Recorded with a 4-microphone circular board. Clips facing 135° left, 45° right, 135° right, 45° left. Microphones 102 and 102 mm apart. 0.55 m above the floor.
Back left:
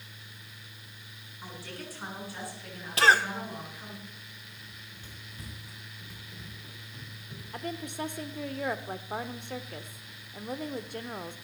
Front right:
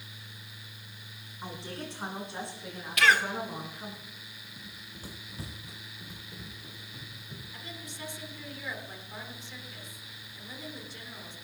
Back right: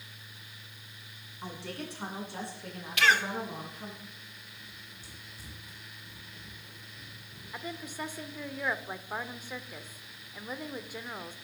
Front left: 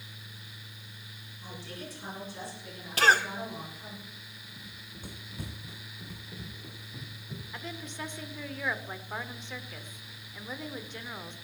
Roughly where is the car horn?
No car horn in this recording.